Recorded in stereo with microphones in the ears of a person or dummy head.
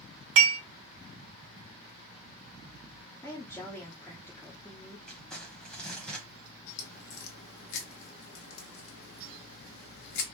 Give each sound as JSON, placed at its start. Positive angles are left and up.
{"t": 0.4, "sound": "dishes clattering", "side_deg": -70, "distance_m": 1.1}
{"t": 3.2, "sound": "a woman speaking", "side_deg": 15, "distance_m": 0.6}
{"t": 5.1, "sound": "crumpling", "side_deg": 10, "distance_m": 0.9}
{"t": 6.8, "sound": "a crack", "side_deg": 50, "distance_m": 1.0}